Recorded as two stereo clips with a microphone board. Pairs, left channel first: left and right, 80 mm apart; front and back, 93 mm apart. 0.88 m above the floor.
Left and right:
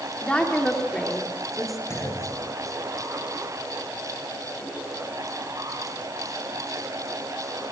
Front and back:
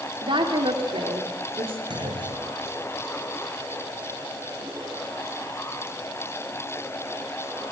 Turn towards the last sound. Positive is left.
turn(degrees=145)